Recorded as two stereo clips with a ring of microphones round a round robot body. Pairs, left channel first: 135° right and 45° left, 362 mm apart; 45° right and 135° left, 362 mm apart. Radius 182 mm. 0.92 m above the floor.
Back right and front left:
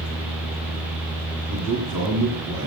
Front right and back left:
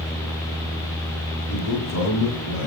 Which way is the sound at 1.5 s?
5° left.